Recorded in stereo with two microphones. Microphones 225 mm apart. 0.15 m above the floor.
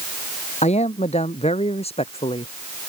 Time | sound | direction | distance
0.6 | a man speaking | 30° left (ahead or behind) | ?